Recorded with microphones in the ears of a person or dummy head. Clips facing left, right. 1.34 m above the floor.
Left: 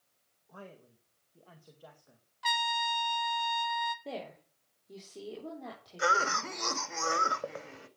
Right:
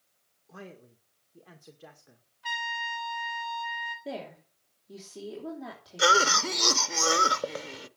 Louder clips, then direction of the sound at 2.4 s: Left 4 dB; 70° left (ahead or behind).